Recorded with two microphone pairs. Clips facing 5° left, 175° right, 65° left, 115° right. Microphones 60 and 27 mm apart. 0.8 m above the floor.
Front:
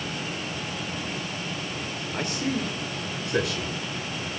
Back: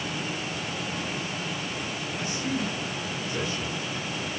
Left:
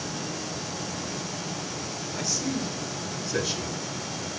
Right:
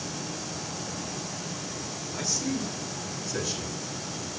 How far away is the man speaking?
About 3 m.